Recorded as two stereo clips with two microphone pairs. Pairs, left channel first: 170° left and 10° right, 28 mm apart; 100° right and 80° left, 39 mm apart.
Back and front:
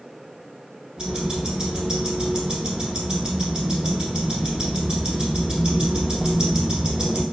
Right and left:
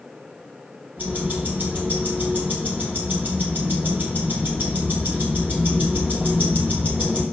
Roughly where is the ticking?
Ahead left.